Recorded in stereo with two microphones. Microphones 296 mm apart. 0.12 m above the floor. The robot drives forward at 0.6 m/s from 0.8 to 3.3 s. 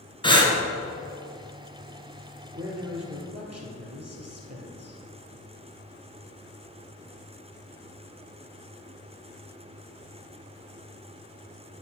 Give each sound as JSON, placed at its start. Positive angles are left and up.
{"t": 0.2, "sound": "breathing", "side_deg": 15, "distance_m": 1.0}
{"t": 2.5, "sound": "a man speaking", "side_deg": -50, "distance_m": 1.9}